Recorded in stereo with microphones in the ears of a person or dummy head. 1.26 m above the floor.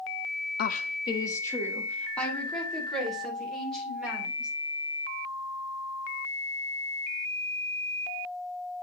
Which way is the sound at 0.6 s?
50° left (ahead or behind).